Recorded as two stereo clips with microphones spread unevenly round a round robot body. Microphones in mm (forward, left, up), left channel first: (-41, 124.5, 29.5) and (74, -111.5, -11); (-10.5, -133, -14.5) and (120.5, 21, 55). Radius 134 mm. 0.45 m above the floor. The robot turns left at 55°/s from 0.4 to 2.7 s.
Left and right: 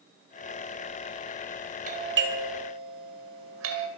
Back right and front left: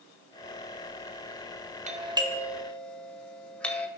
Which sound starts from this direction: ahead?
A doorbell, at 1.9 s.